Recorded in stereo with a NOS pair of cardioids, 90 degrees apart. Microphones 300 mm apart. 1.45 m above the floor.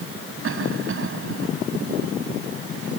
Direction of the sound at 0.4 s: 45° right.